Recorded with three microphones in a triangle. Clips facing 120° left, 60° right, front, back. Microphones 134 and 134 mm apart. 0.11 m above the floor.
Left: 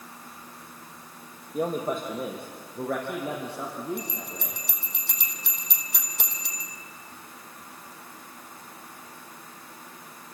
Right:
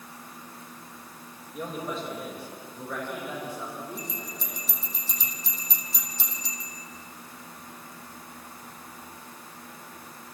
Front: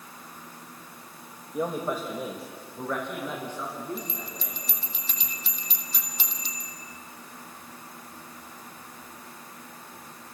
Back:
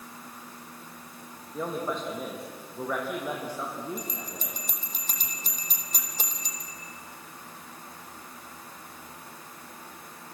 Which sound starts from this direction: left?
A man speaking, at 1.5 s.